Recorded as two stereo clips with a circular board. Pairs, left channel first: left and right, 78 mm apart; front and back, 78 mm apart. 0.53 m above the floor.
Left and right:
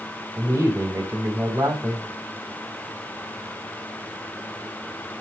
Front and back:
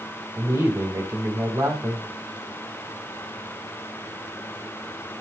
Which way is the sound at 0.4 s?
140° right.